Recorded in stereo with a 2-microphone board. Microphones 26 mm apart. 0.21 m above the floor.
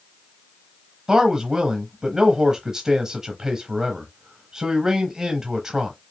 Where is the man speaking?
25° right (ahead or behind), 1.1 m.